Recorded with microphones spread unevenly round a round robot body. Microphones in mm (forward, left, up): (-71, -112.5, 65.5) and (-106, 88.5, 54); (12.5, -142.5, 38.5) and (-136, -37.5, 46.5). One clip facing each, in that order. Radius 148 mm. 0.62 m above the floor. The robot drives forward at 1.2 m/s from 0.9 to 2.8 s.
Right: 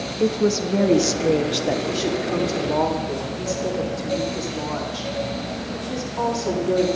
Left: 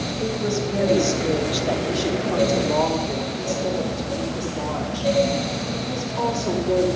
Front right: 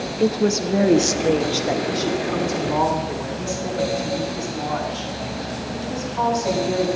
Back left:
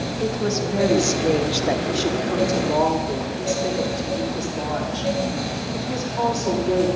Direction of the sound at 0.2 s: 65° right.